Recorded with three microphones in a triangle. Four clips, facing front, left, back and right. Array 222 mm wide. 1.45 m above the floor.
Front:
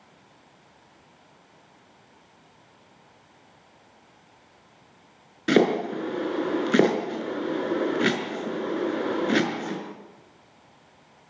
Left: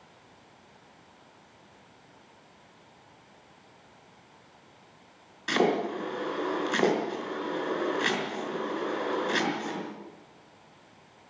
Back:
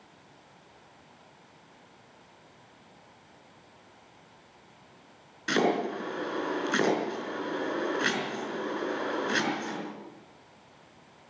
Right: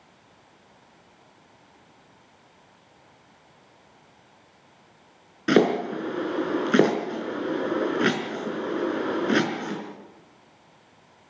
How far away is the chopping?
About 5 m.